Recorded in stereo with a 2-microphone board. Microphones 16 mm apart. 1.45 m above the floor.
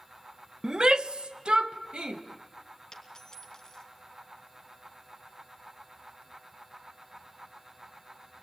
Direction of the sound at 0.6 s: 45° right (ahead or behind).